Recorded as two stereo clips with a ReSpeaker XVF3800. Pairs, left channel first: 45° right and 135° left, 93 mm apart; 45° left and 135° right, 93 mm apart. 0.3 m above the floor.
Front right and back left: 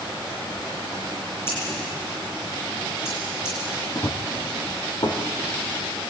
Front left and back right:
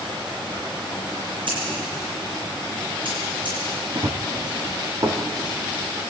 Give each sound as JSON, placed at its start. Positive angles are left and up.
{"t": 1.5, "sound": "scissors", "azimuth_deg": -105, "distance_m": 9.5}
{"t": 4.0, "sound": "running footsteps", "azimuth_deg": -95, "distance_m": 1.7}